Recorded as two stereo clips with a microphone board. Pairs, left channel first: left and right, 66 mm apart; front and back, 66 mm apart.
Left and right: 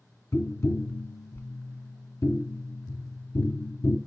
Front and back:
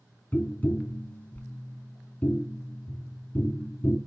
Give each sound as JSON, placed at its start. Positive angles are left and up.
{"t": 0.3, "sound": "tapping", "azimuth_deg": 60, "distance_m": 0.5}